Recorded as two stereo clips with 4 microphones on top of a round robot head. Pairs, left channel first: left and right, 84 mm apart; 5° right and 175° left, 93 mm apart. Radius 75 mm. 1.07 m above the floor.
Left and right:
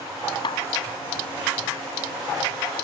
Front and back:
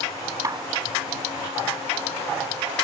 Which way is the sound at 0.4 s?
120° left.